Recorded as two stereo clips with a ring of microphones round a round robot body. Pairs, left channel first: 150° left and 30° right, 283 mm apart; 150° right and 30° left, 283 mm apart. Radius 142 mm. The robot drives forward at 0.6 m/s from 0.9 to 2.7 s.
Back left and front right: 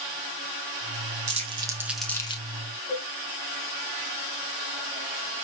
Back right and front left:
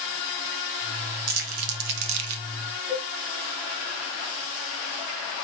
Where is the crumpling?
40° left, 1.0 m; by 2.4 s 80° left, 0.6 m.